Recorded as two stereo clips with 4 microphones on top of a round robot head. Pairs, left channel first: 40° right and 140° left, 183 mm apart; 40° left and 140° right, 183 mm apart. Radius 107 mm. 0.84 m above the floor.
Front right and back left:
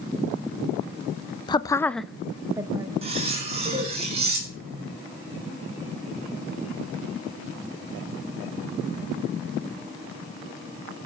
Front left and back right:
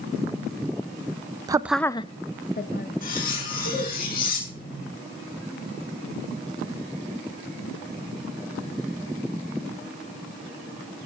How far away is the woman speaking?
About 0.6 m.